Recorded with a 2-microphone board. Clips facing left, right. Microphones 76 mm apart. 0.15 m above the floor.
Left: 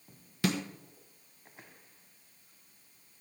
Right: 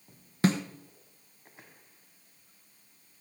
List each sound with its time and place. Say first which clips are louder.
0.4 s a snare drum: right 5 dB; 35° right (ahead or behind), 1.1 m